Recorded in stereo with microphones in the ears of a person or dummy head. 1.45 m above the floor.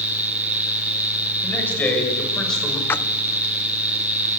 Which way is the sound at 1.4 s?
10° left (ahead or behind).